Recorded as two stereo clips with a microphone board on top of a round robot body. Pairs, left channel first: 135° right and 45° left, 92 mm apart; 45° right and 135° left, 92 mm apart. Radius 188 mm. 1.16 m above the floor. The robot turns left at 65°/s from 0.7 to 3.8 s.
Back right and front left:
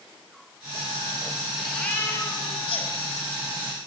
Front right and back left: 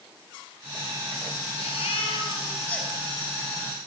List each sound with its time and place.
1.5 s a baby crying: 45° right, 6.5 m; by 2.9 s 135° right, 6.5 m